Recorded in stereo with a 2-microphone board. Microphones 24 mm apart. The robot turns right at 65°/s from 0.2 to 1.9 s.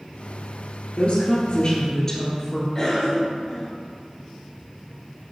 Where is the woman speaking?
95° left, 2 m; by 2.6 s 155° left, 2 m.